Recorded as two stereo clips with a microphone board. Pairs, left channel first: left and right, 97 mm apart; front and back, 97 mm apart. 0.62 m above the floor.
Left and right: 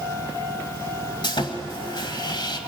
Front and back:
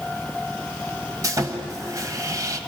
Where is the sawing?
125° left, 1.6 m.